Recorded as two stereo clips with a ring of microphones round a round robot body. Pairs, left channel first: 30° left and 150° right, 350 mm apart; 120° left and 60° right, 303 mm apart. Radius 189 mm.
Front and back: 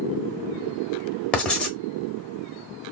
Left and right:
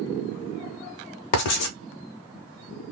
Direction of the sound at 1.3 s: 115° left.